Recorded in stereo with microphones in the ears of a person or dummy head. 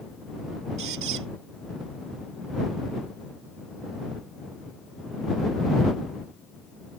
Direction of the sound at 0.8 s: 60° right (ahead or behind).